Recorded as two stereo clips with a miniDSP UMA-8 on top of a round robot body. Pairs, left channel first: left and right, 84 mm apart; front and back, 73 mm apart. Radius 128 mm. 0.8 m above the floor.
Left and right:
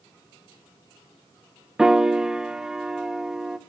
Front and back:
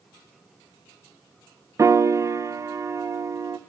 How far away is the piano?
About 0.7 m.